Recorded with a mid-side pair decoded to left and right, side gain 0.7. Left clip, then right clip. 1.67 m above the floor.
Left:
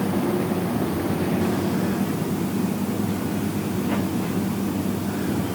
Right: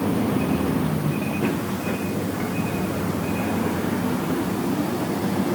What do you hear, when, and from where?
Only background noise.